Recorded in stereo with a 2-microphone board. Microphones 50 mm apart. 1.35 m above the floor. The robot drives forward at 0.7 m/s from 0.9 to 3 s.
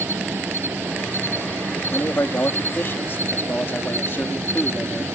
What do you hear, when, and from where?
0.0 s an insect: 60° right (ahead or behind); by 5.2 s 70° right (ahead or behind)
1.9 s a man speaking: 65° left (ahead or behind); by 5.0 s 50° left (ahead or behind)